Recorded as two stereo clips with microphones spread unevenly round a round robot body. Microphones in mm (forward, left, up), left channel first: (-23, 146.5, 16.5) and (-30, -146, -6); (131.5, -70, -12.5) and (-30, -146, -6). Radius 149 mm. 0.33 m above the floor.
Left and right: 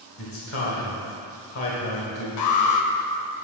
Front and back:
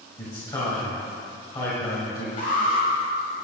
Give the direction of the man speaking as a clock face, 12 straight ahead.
9 o'clock.